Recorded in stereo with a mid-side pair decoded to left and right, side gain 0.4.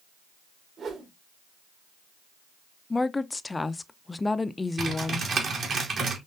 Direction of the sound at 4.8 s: 60° right.